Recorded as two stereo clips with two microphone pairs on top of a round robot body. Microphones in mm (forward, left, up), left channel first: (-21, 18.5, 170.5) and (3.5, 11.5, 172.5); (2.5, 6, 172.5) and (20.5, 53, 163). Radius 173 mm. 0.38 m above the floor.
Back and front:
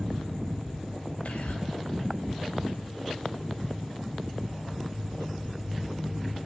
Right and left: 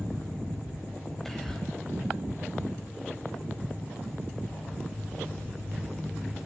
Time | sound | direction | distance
1.2 | whispering | 160° left | 4 m